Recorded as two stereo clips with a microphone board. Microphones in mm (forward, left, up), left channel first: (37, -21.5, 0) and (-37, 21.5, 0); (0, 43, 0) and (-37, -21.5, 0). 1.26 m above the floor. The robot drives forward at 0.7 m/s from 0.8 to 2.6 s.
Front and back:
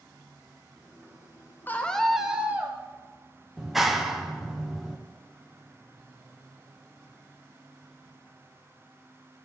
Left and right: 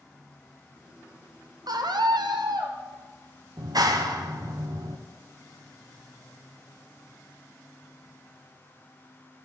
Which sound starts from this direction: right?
A scream, at 1.7 s.